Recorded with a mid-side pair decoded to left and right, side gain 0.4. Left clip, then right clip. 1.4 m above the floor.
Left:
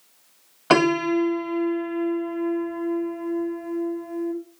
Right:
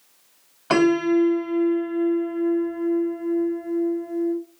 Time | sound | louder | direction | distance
0.7 | a piano | even | 45° left | 1.6 m